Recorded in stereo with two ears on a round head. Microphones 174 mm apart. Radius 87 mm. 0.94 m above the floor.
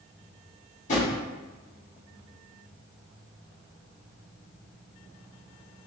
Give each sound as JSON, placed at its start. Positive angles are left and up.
{"t": 0.9, "sound": "a drawer", "side_deg": 40, "distance_m": 1.6}